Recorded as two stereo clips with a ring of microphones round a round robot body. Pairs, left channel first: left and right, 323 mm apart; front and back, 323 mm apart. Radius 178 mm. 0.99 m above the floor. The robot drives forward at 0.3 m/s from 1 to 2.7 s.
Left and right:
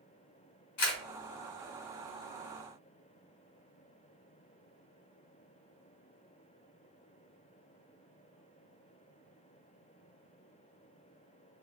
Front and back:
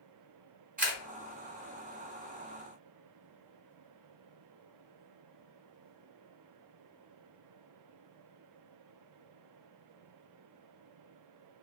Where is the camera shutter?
120° left, 1.2 m.